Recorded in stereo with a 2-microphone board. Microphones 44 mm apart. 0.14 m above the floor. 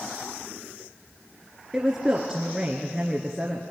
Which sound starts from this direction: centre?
A woman speaking, at 1.7 s.